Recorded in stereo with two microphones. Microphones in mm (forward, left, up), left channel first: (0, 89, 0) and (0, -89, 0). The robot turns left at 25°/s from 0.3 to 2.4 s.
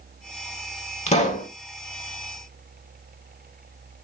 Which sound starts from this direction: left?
A pop, at 1.1 s.